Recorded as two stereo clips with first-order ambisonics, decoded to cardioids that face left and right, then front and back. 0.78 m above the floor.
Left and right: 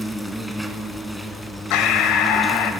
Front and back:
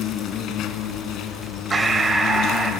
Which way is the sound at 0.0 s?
Straight ahead.